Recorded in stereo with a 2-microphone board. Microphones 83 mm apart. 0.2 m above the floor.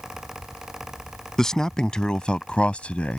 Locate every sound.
1.4 s a man speaking: 5° left (ahead or behind); by 3.2 s 15° left (ahead or behind)